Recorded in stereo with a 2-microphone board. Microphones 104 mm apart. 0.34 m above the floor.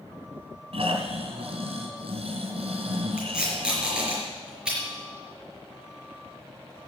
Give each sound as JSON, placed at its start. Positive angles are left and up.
{"t": 0.7, "sound": "snoring", "side_deg": -70, "distance_m": 2.5}
{"t": 3.2, "sound": "tape being pulled", "side_deg": -10, "distance_m": 5.0}